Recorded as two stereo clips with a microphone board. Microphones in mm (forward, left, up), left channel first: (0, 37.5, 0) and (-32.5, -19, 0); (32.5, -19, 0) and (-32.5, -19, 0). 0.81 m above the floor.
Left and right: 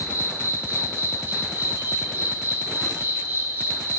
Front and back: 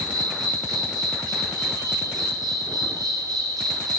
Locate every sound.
0.0 s an insect: straight behind, 9 m